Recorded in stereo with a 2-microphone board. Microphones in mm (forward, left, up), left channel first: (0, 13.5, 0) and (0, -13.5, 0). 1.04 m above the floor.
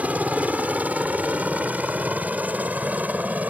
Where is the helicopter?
65° right (ahead or behind); by 3.5 s 75° right (ahead or behind).